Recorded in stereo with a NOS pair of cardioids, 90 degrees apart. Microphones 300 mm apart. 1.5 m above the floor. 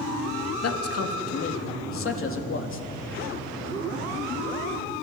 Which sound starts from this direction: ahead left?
A man speaking, at 0.6 s.